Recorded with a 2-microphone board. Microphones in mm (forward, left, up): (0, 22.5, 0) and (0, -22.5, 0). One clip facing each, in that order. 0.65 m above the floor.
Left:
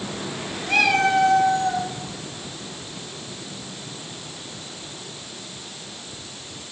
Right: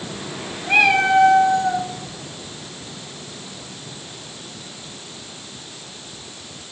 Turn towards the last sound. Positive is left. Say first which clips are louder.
# right 3 dB
turn(degrees=-25)  # may be behind; listen again after turning